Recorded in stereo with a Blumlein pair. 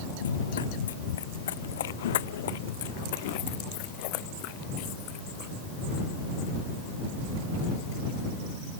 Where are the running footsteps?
65° left; by 5.5 s 40° left.